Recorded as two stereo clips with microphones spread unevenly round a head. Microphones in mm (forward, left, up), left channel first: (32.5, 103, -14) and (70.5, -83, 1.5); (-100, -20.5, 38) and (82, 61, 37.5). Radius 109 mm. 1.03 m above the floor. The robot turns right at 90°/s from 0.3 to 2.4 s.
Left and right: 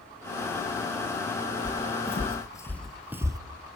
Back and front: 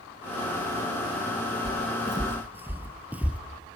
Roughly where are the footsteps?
Ahead left.